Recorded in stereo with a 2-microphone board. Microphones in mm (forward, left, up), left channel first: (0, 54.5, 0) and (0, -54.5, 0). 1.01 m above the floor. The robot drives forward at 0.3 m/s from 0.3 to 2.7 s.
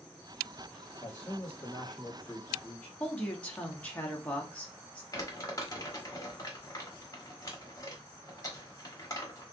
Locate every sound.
1.0 s a man speaking: 15° left (ahead or behind), 2 m; by 2.9 s 10° left (ahead or behind), 2.5 m
3.0 s a woman speaking: 10° left (ahead or behind), 1.2 m
5.1 s crumpling: 30° left (ahead or behind), 1.5 m